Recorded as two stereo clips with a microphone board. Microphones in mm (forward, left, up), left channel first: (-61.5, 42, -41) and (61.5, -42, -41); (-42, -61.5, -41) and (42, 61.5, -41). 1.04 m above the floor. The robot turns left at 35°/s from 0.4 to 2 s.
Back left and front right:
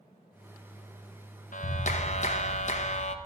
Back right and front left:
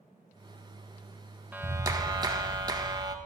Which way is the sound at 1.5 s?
135° left.